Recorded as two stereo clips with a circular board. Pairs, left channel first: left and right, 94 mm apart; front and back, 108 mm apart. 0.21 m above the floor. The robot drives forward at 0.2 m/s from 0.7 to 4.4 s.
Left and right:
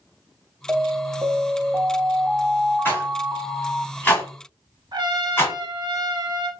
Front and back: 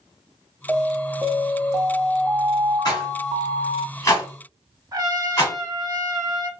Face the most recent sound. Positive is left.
turn(degrees=-125)